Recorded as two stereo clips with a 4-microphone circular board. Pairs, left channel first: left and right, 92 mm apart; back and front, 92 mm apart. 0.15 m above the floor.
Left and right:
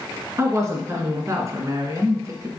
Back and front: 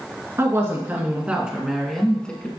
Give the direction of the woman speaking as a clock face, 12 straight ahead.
2 o'clock.